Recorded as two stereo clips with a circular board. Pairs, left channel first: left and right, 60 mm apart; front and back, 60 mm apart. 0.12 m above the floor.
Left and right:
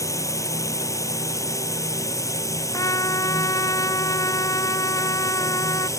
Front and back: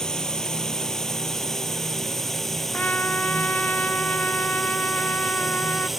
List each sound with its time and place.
0.0 s a drone: 80° left; by 6.0 s 95° left
2.7 s a trumpet: 65° left